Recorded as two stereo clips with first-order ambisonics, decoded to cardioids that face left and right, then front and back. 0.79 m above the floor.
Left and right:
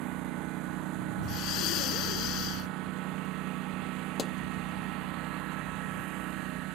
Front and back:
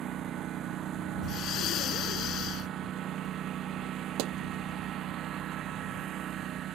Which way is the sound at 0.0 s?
125° right.